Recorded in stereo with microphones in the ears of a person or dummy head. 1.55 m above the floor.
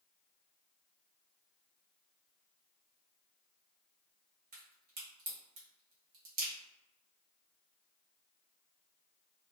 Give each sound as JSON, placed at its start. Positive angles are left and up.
{"t": 4.5, "sound": "a crack", "side_deg": -40, "distance_m": 1.2}